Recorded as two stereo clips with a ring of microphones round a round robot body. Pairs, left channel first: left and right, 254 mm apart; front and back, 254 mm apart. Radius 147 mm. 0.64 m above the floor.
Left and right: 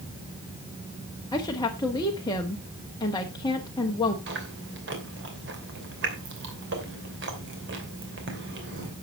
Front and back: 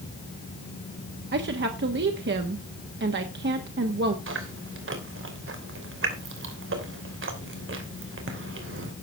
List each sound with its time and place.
1.3 s a woman speaking: 160° left, 1.3 m
4.3 s chewing: 140° right, 3 m